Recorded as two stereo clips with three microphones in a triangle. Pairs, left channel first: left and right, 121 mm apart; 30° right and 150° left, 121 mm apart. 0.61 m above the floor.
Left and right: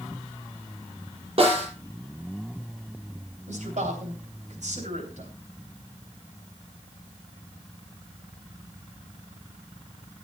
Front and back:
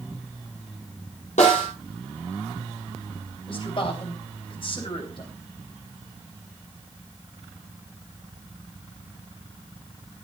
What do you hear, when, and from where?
1.4 s a snare drum: 50° right, 6.5 m
3.5 s a man speaking: 75° right, 3.5 m